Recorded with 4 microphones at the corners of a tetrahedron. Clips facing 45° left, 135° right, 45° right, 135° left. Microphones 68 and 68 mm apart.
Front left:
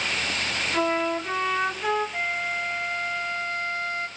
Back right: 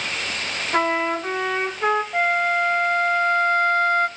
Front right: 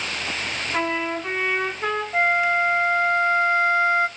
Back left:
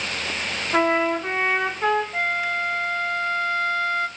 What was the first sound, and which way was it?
A trumpet, straight behind.